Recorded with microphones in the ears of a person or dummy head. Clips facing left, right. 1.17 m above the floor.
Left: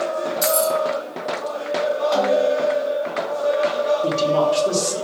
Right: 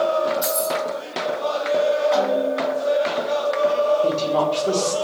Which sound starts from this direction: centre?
A woman speaking, at 4.0 s.